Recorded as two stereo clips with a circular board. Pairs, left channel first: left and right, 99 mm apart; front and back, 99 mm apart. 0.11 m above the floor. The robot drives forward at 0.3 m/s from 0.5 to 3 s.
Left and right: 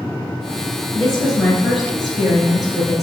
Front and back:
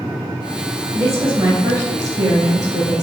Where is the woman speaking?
Straight behind, 1.7 m.